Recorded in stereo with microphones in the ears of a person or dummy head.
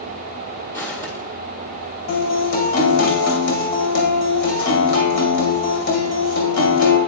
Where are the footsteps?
15° left (ahead or behind), 1.9 m.